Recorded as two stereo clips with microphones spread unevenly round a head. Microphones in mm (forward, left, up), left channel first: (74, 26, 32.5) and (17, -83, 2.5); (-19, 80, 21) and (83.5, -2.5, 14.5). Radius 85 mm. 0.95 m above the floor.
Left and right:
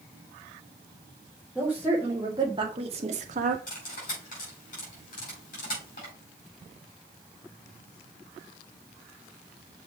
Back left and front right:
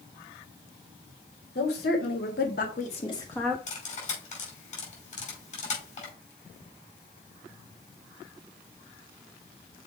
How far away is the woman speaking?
About 3 m.